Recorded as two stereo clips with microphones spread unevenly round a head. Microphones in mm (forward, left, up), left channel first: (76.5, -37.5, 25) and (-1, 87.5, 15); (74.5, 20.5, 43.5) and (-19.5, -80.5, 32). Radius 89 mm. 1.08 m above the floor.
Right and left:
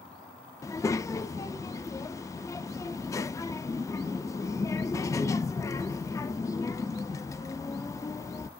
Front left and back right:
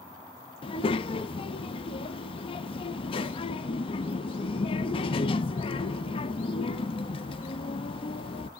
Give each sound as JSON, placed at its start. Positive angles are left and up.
{"t": 0.6, "sound": "a child speaking", "azimuth_deg": 5, "distance_m": 0.5}